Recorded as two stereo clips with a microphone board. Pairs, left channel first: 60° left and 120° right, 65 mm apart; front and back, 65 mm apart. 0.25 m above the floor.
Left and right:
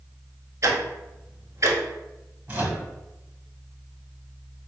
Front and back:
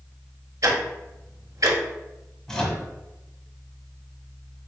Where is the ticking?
160° right, 0.9 m.